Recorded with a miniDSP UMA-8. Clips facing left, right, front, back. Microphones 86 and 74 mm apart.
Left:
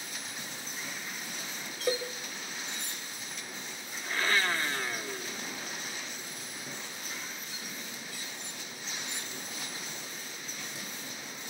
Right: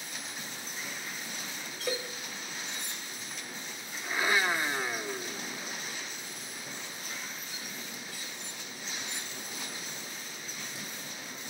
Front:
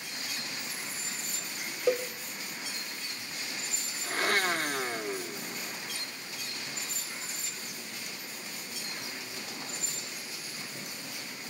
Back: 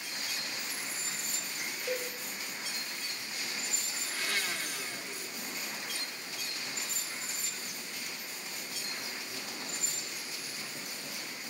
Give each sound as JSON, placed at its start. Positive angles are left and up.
{"t": 1.9, "sound": "a cowbell", "azimuth_deg": 15, "distance_m": 1.1}
{"t": 4.0, "sound": "a blender", "azimuth_deg": -20, "distance_m": 0.7}